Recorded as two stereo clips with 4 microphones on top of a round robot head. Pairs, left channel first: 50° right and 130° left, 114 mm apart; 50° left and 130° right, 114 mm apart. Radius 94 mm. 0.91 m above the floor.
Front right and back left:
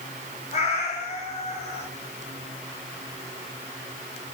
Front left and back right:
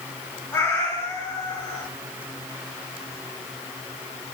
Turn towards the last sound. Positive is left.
turn(degrees=-25)